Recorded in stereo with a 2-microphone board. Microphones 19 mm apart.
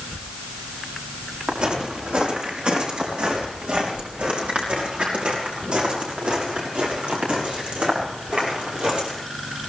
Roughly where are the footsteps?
Right.